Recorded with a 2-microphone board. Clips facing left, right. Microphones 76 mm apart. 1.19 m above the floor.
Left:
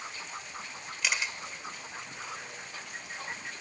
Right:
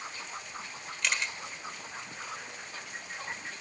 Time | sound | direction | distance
1.0 | a camera shutter | 5° left (ahead or behind) | 1.3 m